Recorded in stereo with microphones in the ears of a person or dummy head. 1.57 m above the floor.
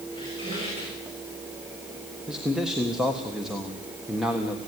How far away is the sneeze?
No sneeze in this recording.